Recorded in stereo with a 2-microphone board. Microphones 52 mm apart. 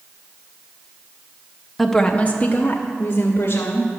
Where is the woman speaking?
Centre (ahead or behind), 0.7 m; by 3.9 s 65° left (ahead or behind), 1.9 m.